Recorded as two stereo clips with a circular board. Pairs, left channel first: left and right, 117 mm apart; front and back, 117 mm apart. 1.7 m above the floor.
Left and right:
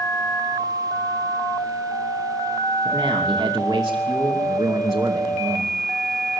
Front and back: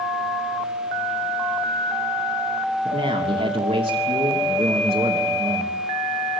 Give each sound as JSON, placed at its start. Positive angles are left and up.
{"t": 2.9, "sound": "a man speaking", "azimuth_deg": -150, "distance_m": 3.0}